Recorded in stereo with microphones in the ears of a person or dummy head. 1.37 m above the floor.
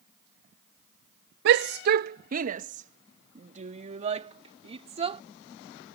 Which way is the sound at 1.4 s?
65° right (ahead or behind).